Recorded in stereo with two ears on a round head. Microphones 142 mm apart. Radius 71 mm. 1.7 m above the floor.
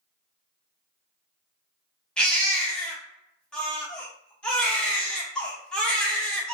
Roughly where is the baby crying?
Centre.